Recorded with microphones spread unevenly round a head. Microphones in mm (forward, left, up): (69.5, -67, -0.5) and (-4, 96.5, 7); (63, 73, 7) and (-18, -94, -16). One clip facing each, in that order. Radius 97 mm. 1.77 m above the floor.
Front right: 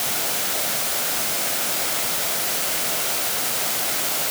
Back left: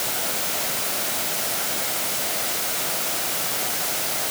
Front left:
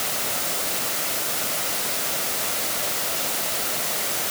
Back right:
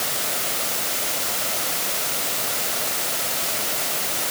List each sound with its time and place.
Only background noise.